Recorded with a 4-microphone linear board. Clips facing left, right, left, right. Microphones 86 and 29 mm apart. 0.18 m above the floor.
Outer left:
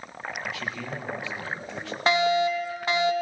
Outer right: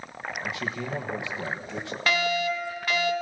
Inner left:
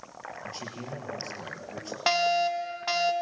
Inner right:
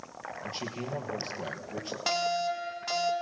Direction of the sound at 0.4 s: 20° right (ahead or behind).